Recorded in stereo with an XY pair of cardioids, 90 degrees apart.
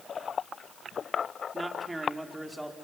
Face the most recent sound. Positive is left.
turn(degrees=-5)